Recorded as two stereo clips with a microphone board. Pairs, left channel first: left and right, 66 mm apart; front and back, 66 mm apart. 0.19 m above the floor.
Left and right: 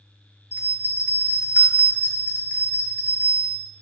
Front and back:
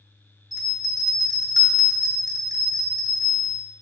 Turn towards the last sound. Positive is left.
turn(degrees=-155)